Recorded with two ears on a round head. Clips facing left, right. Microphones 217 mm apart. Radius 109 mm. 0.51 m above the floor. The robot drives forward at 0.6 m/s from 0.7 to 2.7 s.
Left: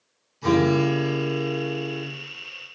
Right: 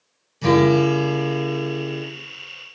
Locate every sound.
0.4 s a guitar: 75° right (ahead or behind), 3.5 m; by 2.0 s 60° right (ahead or behind), 3.5 m